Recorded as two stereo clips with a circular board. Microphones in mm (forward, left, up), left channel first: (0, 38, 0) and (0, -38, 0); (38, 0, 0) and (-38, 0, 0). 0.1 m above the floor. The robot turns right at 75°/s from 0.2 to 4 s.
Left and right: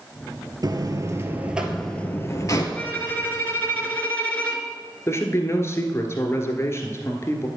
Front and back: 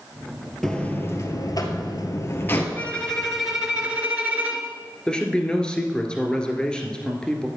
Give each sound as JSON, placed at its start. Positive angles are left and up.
{"t": 0.6, "sound": "a buzzer", "azimuth_deg": -85, "distance_m": 1.3}
{"t": 2.8, "sound": "a violin", "azimuth_deg": 45, "distance_m": 1.4}
{"t": 5.1, "sound": "a man speaking", "azimuth_deg": 70, "distance_m": 1.5}